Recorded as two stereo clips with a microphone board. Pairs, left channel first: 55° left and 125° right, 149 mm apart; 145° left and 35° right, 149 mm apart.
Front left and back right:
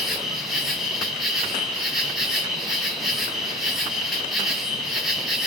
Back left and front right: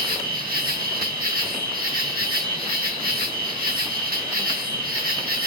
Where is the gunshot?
No gunshot in this recording.